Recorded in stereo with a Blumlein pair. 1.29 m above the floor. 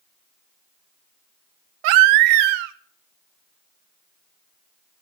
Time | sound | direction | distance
1.8 | a baby crying | 45° right | 0.8 m